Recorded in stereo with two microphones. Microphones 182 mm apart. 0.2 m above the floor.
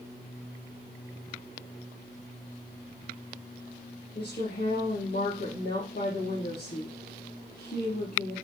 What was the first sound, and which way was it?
A woman speaking, 60° left (ahead or behind).